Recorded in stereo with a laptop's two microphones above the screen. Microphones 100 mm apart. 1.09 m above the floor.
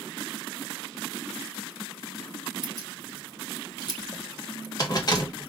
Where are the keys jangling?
40° left (ahead or behind), 0.7 m.